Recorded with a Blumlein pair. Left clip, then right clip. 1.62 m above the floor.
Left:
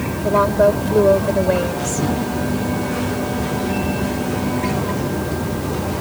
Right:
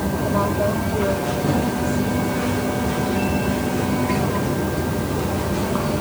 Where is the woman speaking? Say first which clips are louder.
Left 8 dB; 25° left; by 2.1 s 35° left.